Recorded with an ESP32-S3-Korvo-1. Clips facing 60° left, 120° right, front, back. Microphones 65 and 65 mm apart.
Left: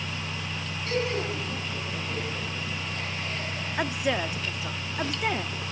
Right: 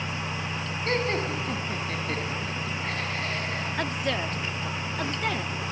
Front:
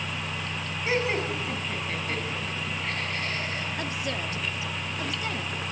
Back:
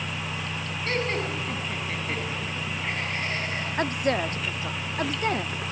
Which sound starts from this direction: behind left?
A woman speaking, at 3.8 s.